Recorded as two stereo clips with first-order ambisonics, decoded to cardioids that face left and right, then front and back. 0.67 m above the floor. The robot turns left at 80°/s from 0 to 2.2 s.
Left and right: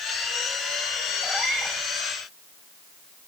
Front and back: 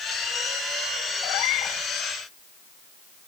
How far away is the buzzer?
No buzzer in this recording.